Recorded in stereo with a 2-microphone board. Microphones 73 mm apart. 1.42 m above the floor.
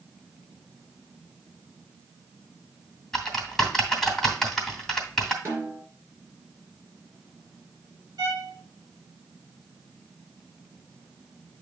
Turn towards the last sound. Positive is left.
turn(degrees=-65)  # may be behind; listen again after turning